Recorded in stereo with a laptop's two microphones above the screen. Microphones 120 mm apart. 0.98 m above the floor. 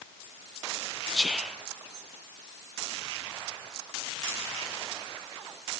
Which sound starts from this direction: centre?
Whispering, at 1.1 s.